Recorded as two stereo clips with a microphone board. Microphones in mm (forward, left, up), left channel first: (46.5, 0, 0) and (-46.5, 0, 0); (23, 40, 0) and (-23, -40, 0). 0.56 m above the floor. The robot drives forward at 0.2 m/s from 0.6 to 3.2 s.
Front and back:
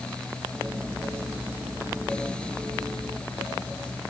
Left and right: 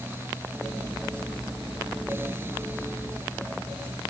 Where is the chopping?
I don't hear chopping.